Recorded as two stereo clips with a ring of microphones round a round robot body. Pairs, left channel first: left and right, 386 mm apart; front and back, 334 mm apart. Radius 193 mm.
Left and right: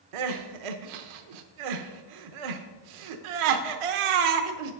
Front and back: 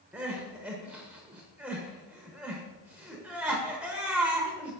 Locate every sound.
0.1 s crying: 95° right, 0.8 m